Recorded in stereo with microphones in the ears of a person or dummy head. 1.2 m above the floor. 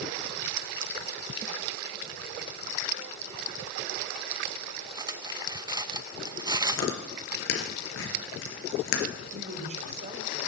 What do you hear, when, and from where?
5.0 s cutlery clinking: 20° right (ahead or behind), 0.6 m
6.7 s chewing: 75° left (ahead or behind), 4 m
9.3 s a woman speaking: 50° right (ahead or behind), 4 m